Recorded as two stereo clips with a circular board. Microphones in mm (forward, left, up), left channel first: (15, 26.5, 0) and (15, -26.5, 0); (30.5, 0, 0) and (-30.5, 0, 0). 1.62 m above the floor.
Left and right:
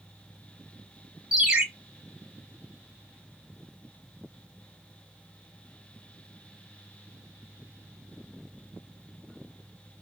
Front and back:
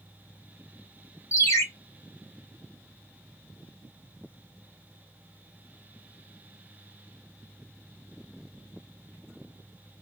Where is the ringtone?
20° right, 1.0 m.